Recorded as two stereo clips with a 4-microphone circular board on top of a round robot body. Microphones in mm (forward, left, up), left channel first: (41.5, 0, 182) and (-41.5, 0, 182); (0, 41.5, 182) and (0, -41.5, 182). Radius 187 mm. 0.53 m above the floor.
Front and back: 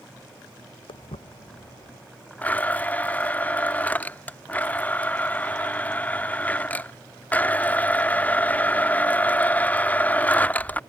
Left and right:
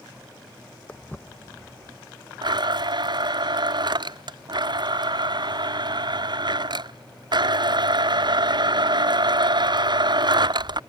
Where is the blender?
70° right.